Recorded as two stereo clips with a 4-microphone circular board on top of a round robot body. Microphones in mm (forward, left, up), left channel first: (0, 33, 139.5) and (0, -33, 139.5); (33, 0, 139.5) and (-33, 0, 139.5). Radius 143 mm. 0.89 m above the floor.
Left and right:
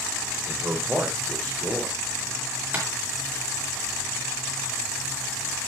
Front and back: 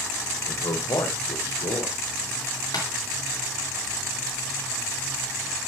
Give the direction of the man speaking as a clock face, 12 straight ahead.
1 o'clock.